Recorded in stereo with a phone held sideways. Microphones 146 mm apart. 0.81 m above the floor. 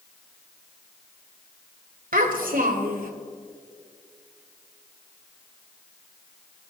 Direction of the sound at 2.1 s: 85° right.